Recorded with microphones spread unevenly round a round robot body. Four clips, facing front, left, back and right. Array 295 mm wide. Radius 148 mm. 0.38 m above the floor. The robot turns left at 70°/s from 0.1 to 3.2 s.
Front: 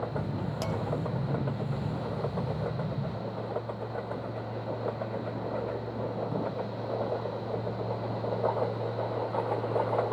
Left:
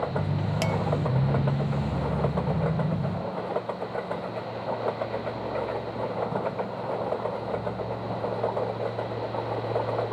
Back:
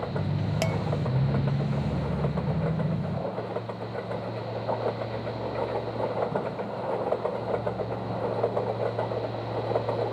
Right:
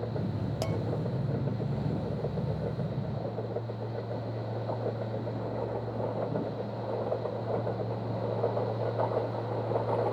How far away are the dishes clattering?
About 0.5 m.